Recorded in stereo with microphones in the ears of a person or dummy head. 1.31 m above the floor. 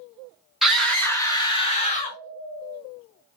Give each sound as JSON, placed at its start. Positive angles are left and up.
{"t": 0.6, "sound": "a scream", "side_deg": 0, "distance_m": 1.0}